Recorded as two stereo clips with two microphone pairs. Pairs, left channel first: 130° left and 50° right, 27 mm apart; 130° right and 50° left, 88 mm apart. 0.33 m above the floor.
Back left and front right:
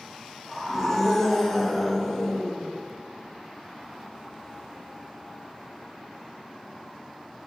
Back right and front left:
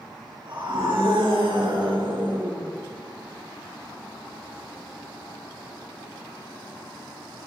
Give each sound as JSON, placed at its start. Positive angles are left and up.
{"t": 0.5, "sound": "a scream", "azimuth_deg": 40, "distance_m": 6.5}